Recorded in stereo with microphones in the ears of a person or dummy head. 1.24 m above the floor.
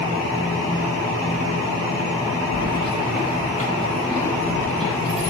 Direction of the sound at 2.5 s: 65° left (ahead or behind).